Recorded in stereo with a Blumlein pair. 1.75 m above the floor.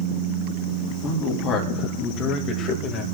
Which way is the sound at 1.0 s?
35° left.